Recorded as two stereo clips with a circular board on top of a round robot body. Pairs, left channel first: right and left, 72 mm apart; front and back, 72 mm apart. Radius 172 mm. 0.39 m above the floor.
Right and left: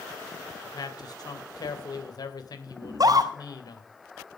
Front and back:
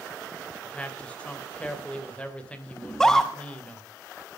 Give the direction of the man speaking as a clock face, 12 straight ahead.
2 o'clock.